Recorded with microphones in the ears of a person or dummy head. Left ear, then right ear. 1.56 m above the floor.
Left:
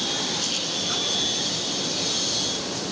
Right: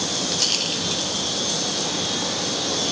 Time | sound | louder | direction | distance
0.3 | a rattle | right 4 dB | 35° right (ahead or behind) | 5.5 m